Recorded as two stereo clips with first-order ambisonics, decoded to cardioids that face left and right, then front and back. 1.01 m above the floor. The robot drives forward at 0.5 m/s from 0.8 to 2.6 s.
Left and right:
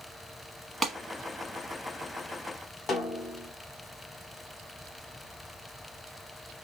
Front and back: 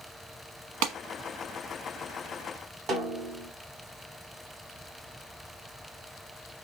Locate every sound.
0.8 s a clap: 175° right, 1.0 m
2.9 s a snare drum: 140° left, 0.8 m